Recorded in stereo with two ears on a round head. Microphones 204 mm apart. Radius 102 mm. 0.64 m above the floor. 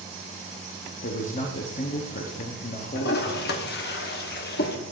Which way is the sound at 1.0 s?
35° left (ahead or behind).